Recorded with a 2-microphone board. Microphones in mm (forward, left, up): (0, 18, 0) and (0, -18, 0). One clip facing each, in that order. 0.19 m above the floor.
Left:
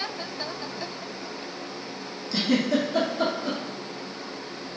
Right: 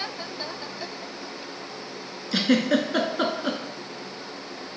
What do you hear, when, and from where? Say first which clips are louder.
2.3 s a giggle: right 2 dB; 65° right (ahead or behind), 0.7 m